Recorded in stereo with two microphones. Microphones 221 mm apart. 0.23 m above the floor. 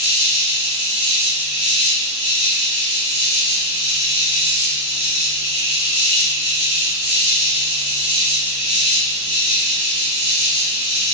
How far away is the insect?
About 1.6 m.